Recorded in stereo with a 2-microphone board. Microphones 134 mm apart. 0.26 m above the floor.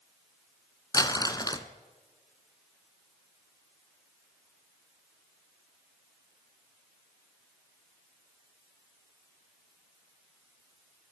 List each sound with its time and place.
0.9 s crumpling: 30° left (ahead or behind), 1.6 m